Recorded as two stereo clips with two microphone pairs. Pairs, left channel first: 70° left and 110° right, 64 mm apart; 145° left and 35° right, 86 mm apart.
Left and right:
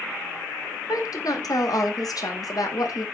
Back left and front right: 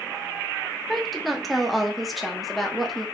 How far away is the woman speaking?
About 0.9 m.